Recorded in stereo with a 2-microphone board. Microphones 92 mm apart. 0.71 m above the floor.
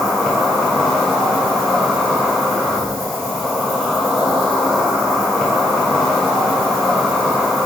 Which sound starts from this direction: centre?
An insect, at 0.0 s.